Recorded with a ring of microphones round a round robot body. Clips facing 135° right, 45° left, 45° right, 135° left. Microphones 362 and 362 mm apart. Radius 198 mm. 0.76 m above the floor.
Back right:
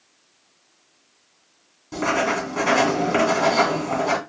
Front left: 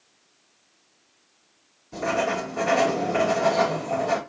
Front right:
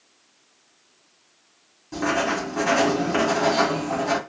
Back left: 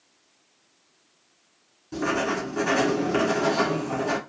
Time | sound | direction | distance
1.9 | writing | 135° right | 2.5 m